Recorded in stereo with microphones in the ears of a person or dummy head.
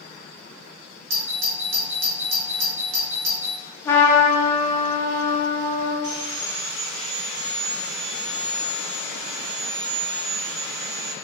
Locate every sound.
1.1 s a doorbell: 55° right (ahead or behind), 1.4 m
3.9 s a trumpet: 15° left (ahead or behind), 1.1 m
6.0 s sawing: 75° right (ahead or behind), 1.1 m